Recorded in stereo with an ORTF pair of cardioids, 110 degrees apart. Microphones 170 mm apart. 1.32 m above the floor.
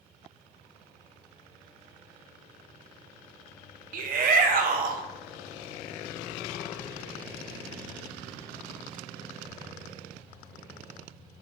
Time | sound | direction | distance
3.9 | a shout | 55° right | 0.6 m